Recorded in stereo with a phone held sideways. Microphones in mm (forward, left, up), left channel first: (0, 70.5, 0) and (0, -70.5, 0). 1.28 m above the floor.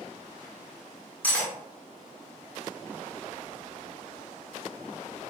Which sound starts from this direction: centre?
Cutlery clinking, at 1.2 s.